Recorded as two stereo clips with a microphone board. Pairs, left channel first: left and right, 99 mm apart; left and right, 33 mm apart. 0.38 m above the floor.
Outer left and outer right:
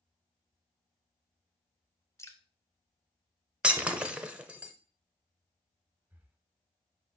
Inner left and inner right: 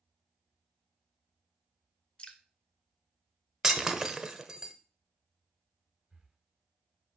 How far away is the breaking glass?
About 0.8 m.